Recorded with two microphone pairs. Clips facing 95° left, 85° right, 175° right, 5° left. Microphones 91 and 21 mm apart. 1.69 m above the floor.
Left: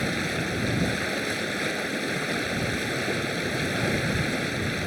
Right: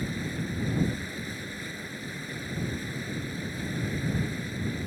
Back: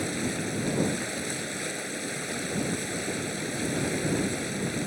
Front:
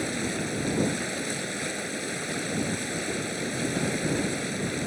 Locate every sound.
0.0 s running water: 90° left